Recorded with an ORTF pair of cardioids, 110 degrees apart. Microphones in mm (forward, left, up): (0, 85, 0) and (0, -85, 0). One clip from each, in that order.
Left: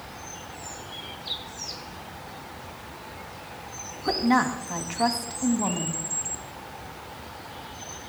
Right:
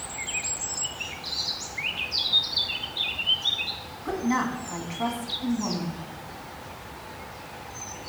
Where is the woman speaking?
35° left, 1.6 m.